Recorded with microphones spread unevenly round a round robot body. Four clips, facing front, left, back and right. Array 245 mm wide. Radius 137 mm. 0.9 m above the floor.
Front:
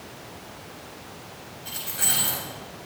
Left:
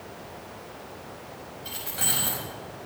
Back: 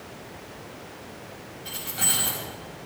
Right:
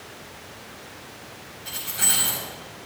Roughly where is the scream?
I don't hear a scream.